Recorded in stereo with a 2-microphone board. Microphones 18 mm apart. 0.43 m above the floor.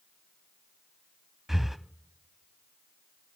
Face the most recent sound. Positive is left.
turn(degrees=-15)  # may be behind; listen again after turning